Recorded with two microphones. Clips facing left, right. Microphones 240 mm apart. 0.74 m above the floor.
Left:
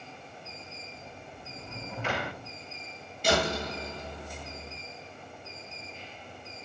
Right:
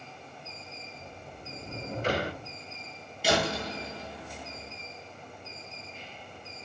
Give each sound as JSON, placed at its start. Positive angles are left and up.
{"t": 1.0, "sound": "a sliding door", "side_deg": -40, "distance_m": 1.8}
{"t": 3.2, "sound": "a door slam", "side_deg": -5, "distance_m": 6.5}